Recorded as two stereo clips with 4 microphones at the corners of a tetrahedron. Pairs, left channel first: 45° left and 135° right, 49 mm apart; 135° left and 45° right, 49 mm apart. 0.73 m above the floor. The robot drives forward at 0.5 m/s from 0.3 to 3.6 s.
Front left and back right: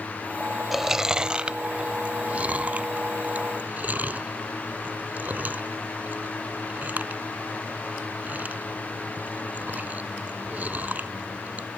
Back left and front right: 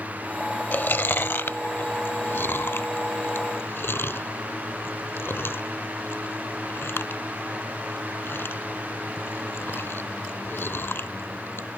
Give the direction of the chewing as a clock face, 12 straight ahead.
7 o'clock.